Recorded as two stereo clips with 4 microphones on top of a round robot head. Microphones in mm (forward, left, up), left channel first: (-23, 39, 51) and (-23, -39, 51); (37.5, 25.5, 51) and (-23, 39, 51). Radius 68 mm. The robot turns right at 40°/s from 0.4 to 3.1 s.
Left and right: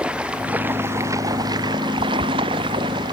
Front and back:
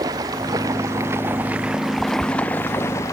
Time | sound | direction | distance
0.0 | running water | 165° right | ?